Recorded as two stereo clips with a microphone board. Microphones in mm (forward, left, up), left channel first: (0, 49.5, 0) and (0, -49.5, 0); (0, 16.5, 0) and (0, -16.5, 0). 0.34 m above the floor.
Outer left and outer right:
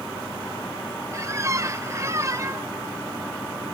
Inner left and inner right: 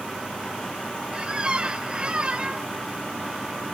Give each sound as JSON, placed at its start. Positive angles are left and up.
{"t": 1.1, "sound": "a squeak", "side_deg": -30, "distance_m": 0.5}